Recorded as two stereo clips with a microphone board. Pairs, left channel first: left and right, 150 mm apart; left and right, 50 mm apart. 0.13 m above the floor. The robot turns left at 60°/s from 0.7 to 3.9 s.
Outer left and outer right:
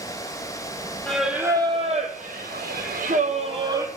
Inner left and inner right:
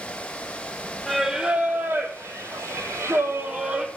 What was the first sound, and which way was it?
Singing, 5° left.